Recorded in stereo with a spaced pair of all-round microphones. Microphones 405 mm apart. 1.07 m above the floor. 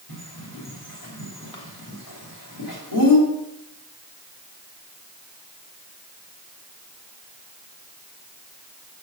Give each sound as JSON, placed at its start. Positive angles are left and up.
{"t": 0.1, "sound": "a bird", "side_deg": 60, "distance_m": 3.0}